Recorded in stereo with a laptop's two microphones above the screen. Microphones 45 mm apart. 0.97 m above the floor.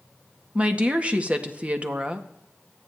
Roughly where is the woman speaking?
Right.